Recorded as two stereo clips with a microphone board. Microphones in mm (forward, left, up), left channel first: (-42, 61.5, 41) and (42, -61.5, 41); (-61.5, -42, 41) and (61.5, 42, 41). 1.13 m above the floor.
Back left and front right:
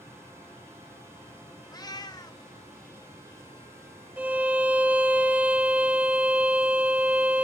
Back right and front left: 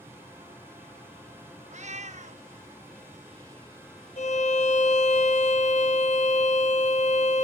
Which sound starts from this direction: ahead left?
A cat meowing, at 1.7 s.